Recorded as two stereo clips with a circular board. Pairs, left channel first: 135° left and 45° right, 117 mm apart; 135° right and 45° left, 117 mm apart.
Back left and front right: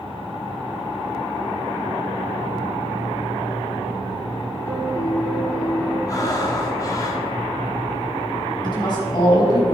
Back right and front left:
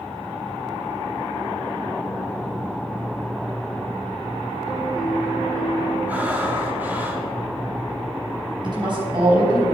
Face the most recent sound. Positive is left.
turn(degrees=90)